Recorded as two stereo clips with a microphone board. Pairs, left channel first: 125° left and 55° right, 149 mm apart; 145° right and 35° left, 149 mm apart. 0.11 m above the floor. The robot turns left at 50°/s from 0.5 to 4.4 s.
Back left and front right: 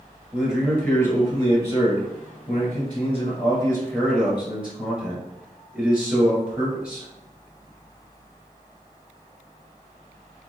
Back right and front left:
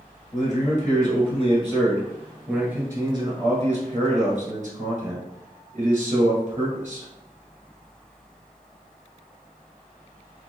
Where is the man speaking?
140° right, 1.9 m; by 7.1 s 25° left, 1.9 m.